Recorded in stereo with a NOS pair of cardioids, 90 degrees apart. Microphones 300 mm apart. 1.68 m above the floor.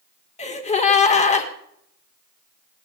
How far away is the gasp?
About 2.5 m.